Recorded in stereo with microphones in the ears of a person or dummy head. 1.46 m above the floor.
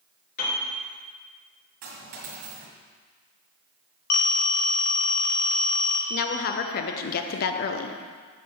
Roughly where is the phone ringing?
Left.